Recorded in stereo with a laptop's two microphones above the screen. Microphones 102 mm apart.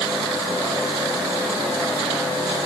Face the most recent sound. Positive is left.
No sound to turn to.